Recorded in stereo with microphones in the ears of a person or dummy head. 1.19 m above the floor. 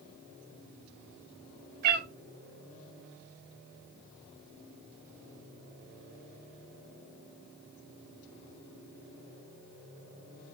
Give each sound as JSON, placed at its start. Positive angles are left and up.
{"t": 1.8, "sound": "a cat meowing", "side_deg": -35, "distance_m": 0.7}